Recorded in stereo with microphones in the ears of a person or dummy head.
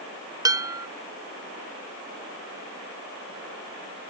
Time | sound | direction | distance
0.5 | dishes clattering | 20° right (ahead or behind) | ?